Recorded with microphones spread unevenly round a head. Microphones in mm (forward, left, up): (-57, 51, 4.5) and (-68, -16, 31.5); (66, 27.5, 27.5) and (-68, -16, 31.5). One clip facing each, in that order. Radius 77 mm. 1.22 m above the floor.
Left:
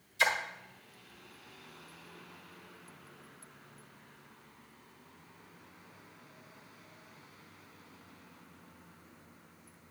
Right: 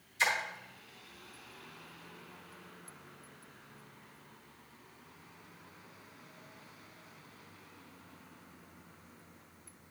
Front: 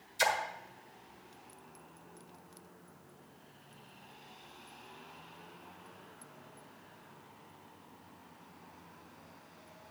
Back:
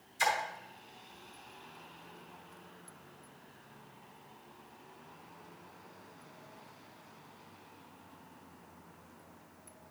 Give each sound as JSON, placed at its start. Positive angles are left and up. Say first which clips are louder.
{"t": 0.2, "sound": "a splash", "louder": "left 2 dB, even", "azimuth_deg": 20, "distance_m": 1.5}